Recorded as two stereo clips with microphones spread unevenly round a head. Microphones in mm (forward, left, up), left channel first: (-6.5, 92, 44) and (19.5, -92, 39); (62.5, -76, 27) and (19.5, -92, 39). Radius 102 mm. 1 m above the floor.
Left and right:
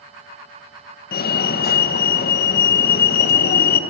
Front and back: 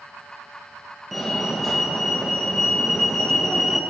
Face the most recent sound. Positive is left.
turn(degrees=90)